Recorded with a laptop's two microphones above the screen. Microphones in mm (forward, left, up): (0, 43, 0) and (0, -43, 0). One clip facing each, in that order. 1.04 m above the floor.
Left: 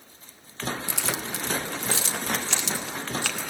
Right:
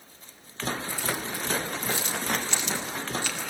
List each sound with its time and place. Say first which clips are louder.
0.9 s keys jangling: even; 80° left, 0.8 m; by 3.5 s 90° left, 2.5 m